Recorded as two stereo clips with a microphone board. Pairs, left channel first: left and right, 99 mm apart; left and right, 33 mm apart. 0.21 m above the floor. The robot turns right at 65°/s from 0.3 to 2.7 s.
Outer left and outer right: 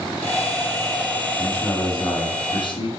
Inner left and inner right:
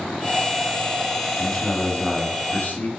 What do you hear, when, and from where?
1.4 s a man speaking: straight ahead, 1.6 m; by 2.9 s 90° left, 1.6 m